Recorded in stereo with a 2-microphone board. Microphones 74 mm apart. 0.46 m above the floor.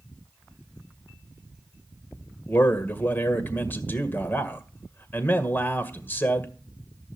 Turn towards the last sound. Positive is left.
turn(degrees=30)  # may be behind; listen again after turning